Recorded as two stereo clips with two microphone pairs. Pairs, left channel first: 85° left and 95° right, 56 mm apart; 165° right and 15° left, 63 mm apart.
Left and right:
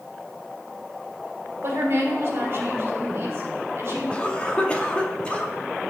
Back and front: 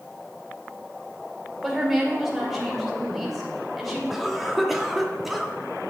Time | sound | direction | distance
1.6 | a woman speaking | 75° right | 2 m
4.1 | a cough | 80° left | 0.7 m